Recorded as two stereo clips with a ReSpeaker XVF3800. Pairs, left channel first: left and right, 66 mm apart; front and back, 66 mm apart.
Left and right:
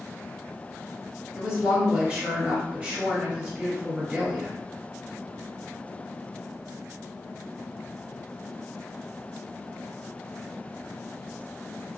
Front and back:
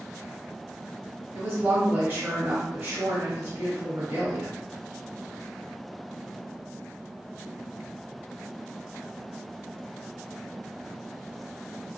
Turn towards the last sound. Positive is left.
turn(degrees=-150)